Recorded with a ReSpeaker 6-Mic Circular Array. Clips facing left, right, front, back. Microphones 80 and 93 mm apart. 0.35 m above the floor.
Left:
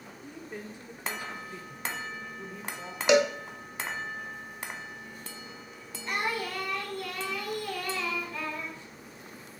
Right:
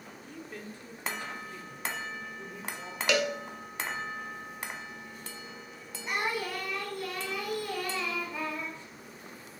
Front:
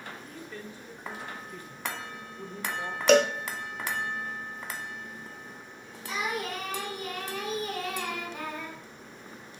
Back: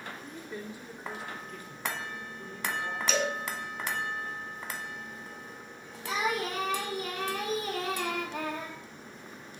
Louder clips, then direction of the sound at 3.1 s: Left 6 dB, front 11 dB; 20° left.